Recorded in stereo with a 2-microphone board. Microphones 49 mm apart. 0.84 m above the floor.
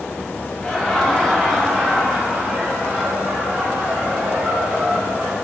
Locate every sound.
0.6 s laughter: 15° left (ahead or behind), 0.7 m; by 5.3 s 15° right (ahead or behind), 2 m